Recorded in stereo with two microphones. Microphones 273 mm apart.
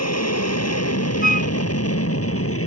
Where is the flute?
30° left (ahead or behind).